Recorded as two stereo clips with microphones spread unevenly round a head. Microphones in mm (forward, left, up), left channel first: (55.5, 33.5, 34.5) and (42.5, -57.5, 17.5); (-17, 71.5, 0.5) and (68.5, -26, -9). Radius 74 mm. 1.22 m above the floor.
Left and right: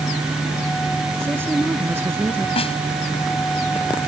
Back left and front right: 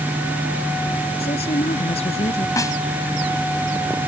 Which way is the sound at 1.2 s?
175° right.